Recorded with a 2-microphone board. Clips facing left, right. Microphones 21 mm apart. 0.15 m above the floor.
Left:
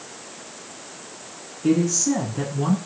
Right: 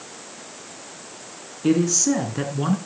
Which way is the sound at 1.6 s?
25° right (ahead or behind).